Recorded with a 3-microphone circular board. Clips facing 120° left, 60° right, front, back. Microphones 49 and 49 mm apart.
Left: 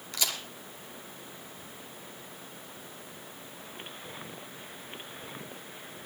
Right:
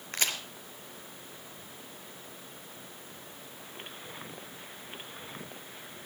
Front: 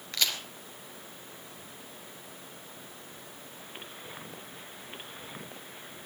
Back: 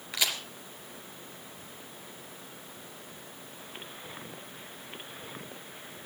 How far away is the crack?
About 3 m.